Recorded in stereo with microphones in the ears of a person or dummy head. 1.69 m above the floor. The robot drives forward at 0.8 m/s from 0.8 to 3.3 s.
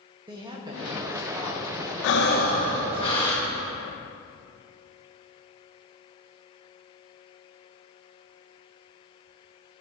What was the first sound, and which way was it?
A woman speaking, 25° right (ahead or behind).